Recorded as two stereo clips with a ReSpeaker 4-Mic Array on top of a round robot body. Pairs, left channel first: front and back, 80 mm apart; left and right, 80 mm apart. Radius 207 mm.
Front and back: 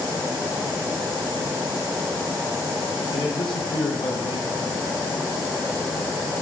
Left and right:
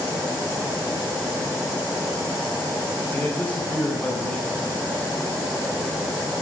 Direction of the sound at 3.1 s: 20° left.